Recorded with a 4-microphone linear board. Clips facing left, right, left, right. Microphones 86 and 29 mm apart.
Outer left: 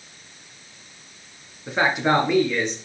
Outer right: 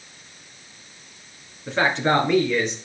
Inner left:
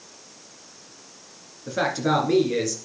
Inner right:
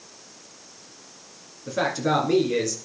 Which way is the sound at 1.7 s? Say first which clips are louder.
Even, inner left 1 dB; 10° left (ahead or behind).